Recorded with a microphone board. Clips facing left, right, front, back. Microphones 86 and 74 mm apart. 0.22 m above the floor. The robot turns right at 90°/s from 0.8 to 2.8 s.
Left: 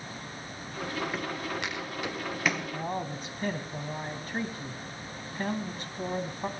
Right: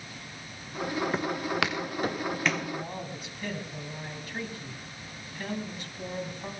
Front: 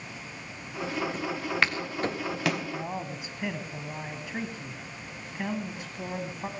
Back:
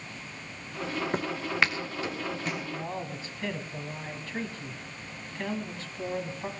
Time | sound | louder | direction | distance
1.1 | footsteps | right 5 dB, back 2 dB | 155° right | 1.5 m
2.7 | a man speaking | left 3 dB, front 1 dB | 65° left | 1.6 m